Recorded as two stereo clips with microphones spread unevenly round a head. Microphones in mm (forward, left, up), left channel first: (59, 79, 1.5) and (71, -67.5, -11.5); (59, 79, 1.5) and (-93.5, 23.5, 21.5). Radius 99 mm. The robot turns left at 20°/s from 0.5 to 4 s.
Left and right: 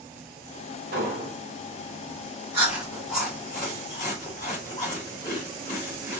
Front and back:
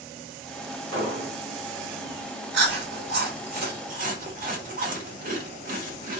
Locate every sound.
0.9 s an explosion: 130° right, 2 m; by 1.4 s 135° right, 2 m
2.5 s chewing: 165° right, 1.7 m; by 6.2 s 165° left, 1.7 m